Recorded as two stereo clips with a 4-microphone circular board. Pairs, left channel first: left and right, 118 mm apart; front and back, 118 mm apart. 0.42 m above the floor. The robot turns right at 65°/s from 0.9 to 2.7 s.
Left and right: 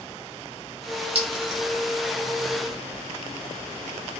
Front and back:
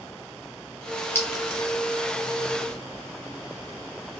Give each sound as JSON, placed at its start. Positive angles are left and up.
{"t": 1.1, "sound": "a clink", "azimuth_deg": -70, "distance_m": 0.9}